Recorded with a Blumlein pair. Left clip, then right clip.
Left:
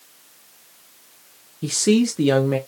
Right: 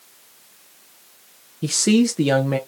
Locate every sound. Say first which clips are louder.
1.6 s a man speaking: even; 5° right, 0.6 m